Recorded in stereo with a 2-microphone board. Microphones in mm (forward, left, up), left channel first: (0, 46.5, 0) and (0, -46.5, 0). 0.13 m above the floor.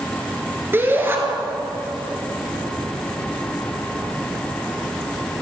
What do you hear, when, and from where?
0.7 s a shout: 25° right (ahead or behind), 2 m